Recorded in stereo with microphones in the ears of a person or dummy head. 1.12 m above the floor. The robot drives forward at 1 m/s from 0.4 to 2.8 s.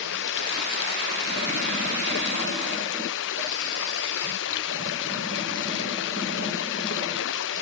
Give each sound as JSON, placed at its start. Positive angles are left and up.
{"t": 0.0, "sound": "running water", "side_deg": 70}